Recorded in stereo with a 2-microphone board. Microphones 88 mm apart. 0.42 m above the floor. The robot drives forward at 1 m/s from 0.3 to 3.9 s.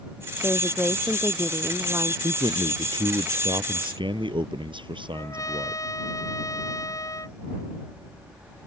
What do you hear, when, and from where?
0.4 s a woman speaking: 25° right (ahead or behind); by 2.1 s 20° right (ahead or behind)
2.2 s a man speaking: 60° right (ahead or behind); by 5.8 s 70° right (ahead or behind)
5.1 s a trumpet: 40° left (ahead or behind)